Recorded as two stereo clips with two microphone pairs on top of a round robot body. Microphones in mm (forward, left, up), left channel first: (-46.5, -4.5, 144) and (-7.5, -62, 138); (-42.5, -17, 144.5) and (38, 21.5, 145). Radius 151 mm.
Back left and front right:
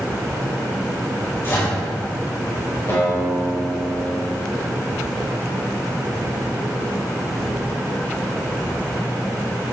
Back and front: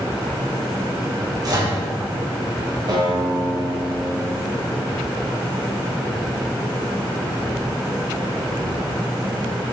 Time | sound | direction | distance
1.4 | a microwave | 65° left | 2.5 m
2.9 | a guitar | 70° left | 2 m